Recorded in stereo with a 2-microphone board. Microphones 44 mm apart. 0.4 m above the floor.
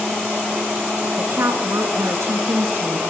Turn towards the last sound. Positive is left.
turn(degrees=-70)  # may be behind; listen again after turning